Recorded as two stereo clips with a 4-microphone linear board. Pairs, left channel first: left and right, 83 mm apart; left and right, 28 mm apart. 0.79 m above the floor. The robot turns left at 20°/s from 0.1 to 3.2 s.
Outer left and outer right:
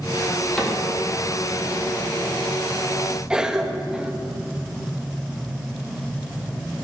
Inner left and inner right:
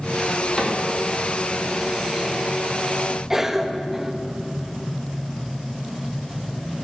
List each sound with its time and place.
0.6 s a cupboard door: 10° left (ahead or behind), 1.6 m
3.3 s a cough: 10° right (ahead or behind), 0.6 m